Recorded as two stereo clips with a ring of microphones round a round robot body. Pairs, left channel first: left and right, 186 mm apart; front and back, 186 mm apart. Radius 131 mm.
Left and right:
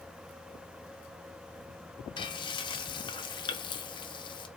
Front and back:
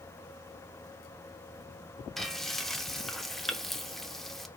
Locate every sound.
2.2 s frying: 90° left, 0.6 m